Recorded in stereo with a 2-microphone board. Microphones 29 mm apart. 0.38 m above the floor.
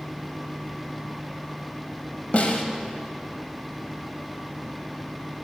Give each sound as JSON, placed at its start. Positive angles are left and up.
{"t": 2.3, "sound": "a snare drum", "side_deg": 60, "distance_m": 0.6}